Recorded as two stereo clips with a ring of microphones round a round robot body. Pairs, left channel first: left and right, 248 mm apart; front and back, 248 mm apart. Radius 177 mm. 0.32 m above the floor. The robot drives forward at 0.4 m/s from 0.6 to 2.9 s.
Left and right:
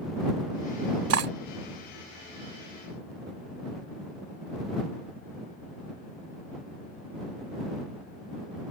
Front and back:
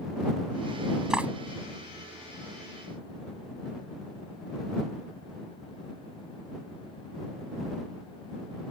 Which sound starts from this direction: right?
Cutlery clinking, at 1.1 s.